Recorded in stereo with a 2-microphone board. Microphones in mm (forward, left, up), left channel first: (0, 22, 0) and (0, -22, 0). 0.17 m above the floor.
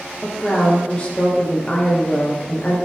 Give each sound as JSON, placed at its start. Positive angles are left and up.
{"t": 0.2, "sound": "a woman speaking", "side_deg": 25, "distance_m": 3.0}